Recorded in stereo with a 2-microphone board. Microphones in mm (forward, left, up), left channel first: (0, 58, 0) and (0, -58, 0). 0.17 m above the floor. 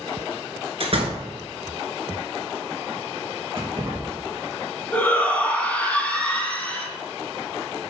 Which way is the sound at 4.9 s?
15° left (ahead or behind).